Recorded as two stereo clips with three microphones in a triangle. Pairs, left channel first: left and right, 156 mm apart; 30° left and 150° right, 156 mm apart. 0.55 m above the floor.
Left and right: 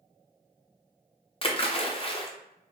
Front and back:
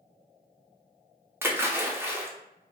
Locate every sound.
1.4 s a splash: 140° left, 0.5 m